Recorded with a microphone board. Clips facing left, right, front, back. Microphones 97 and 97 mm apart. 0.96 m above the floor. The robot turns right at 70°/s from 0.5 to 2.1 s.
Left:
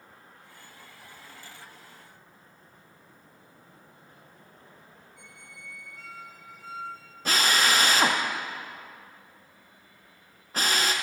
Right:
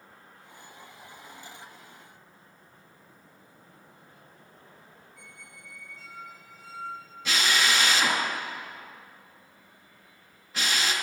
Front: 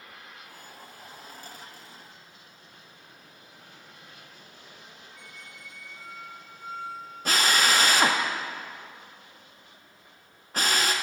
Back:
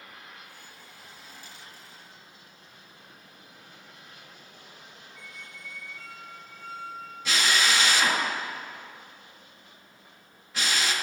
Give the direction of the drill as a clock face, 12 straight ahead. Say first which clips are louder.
Left 2 dB, front 2 dB; 11 o'clock.